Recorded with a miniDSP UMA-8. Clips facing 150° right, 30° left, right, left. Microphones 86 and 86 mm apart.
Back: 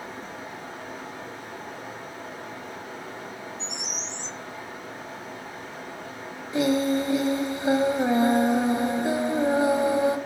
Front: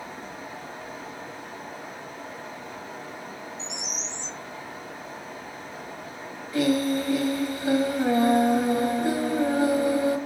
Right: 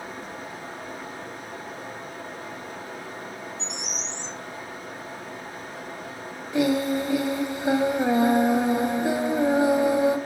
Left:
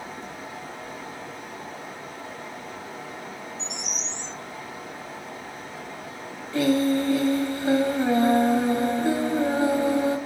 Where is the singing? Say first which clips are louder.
Back 1 dB, left 1 dB; 135° right, 0.5 m.